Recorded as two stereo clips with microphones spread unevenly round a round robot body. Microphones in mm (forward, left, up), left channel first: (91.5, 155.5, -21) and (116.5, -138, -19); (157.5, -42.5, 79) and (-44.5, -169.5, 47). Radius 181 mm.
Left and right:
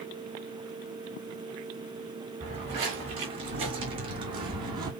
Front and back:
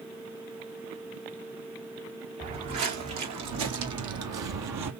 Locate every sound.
2.4 s footsteps: 160° right, 2.5 m